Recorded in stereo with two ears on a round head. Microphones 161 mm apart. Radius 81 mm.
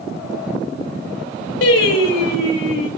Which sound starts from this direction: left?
Singing, at 1.6 s.